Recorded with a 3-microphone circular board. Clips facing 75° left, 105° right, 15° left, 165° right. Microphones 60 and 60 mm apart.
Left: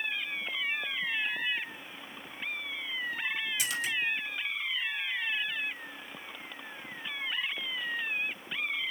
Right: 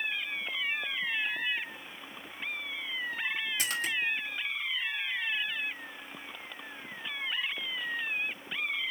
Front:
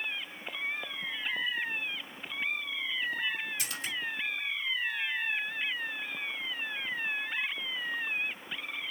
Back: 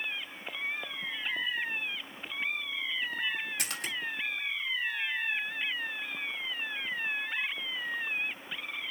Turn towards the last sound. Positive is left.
turn(degrees=-150)